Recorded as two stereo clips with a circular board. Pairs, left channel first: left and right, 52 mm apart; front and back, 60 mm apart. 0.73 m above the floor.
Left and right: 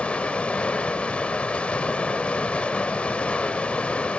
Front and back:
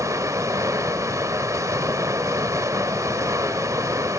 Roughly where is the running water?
Behind left.